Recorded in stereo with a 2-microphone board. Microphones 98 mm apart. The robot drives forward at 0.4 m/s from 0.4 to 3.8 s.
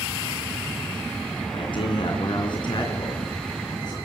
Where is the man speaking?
60° left (ahead or behind), 3 m; by 4.0 s 50° left (ahead or behind), 3.5 m.